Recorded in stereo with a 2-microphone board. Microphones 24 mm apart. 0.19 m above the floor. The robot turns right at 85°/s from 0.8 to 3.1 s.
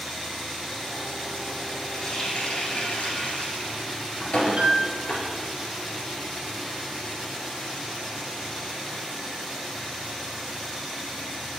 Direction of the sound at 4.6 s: 45° right (ahead or behind).